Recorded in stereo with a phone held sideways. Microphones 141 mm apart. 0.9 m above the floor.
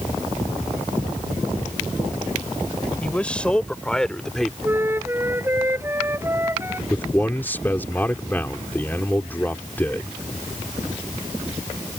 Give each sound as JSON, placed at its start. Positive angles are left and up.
{"t": 3.0, "sound": "a man speaking", "side_deg": 10}
{"t": 4.6, "sound": "a flute", "side_deg": -15}
{"t": 6.9, "sound": "a man speaking", "side_deg": 15}